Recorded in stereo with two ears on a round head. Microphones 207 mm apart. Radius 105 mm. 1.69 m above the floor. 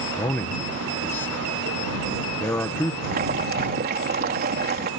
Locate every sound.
0.1 s a man speaking: 10° left (ahead or behind)
3.0 s boiling: 45° right (ahead or behind)